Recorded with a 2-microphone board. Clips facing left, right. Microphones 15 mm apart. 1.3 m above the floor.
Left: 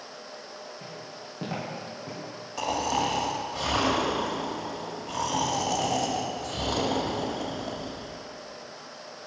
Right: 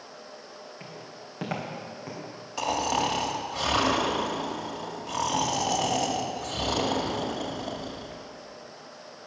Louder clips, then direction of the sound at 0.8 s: Left 2 dB; 60° right (ahead or behind).